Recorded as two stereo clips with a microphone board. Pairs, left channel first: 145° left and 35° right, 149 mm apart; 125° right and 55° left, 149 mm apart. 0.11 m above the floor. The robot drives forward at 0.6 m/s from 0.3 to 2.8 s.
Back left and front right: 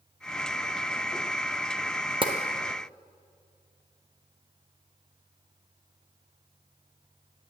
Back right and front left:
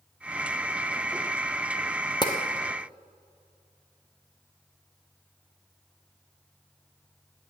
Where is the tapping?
75° right, 1.1 m; by 2.3 s 80° right, 1.1 m.